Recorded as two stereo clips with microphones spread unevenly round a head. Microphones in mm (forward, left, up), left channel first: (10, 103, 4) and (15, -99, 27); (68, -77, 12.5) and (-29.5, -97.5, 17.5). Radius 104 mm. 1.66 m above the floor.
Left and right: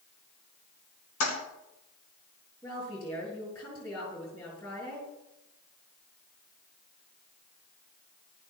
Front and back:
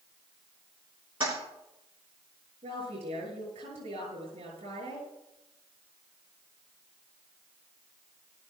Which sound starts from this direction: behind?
A woman speaking, at 2.6 s.